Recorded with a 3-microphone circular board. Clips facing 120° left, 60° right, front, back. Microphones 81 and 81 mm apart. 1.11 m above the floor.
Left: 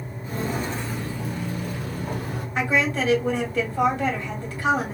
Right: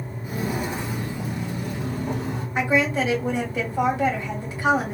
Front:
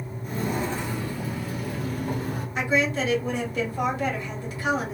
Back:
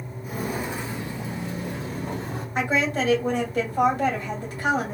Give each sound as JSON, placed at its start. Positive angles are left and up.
{"t": 0.2, "sound": "footsteps", "azimuth_deg": -110, "distance_m": 1.1}
{"t": 2.5, "sound": "a woman speaking", "azimuth_deg": -135, "distance_m": 2.0}